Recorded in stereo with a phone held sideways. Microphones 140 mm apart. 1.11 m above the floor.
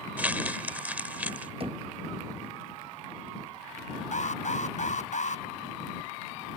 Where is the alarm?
60° left (ahead or behind).